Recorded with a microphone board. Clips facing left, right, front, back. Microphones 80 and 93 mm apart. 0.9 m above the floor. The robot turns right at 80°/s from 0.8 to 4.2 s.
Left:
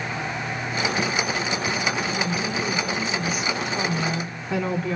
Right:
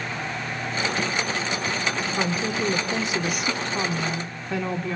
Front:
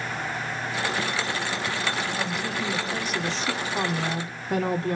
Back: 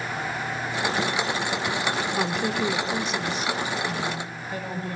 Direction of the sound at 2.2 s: 160° right.